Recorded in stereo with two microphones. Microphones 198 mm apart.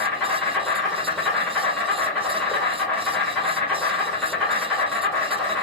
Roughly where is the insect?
Centre.